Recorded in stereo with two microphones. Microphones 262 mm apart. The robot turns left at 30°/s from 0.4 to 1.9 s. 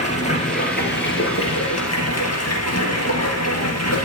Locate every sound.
0.0 s running water: 155° left, 3 m; by 4.1 s 110° left, 3 m